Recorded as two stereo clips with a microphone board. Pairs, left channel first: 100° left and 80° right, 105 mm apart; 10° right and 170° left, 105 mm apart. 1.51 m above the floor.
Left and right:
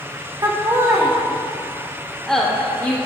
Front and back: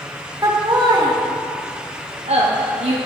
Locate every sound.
0.4 s laughter: 130° right, 1.4 m; by 3.0 s 165° left, 1.0 m